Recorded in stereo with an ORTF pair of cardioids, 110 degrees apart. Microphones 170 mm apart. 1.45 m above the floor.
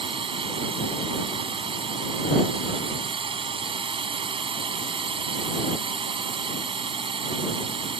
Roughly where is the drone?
Ahead right.